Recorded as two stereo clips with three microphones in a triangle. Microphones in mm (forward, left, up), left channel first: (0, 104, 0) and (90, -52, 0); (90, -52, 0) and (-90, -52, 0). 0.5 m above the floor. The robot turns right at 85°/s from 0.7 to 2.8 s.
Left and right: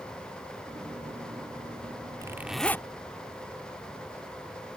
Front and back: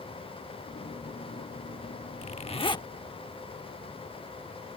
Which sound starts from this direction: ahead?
A zipper, at 2.2 s.